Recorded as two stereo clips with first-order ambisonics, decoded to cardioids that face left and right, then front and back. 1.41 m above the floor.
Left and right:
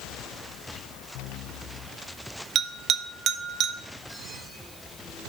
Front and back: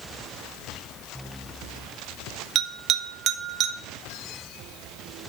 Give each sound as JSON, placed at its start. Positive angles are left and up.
{"t": 2.5, "sound": "a bell", "azimuth_deg": -135, "distance_m": 0.6}